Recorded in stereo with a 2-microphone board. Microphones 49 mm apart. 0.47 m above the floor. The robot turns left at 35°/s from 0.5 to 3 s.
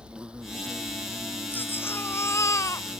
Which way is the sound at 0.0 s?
20° right.